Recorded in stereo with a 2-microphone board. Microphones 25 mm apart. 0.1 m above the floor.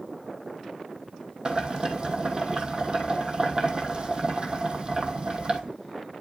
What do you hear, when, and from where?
1.4 s boiling: 35° right (ahead or behind), 1.2 m